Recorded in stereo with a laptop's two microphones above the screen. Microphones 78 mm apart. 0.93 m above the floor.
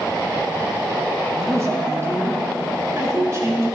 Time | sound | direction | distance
1.4 | a woman speaking | 35° right (ahead or behind) | 1.1 m